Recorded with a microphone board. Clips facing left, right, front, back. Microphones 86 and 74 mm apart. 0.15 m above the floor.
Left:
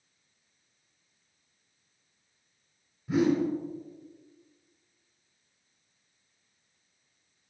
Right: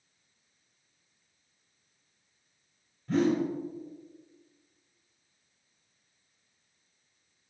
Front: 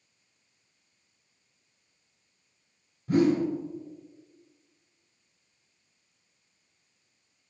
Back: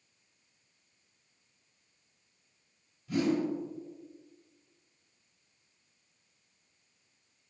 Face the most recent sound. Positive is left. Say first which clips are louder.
# left 1 dB, front 6 dB
turn(degrees=15)